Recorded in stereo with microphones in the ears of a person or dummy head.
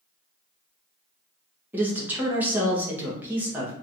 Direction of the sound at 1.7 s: 10° right (ahead or behind).